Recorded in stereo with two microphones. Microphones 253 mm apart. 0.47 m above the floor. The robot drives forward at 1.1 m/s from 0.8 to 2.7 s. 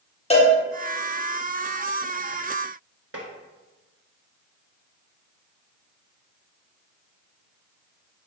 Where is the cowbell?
25° left (ahead or behind), 0.9 m.